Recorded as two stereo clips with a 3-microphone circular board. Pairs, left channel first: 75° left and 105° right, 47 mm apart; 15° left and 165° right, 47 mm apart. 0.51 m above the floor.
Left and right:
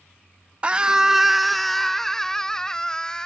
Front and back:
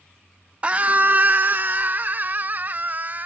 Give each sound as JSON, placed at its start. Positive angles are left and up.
{"t": 0.6, "sound": "a scream", "azimuth_deg": -140}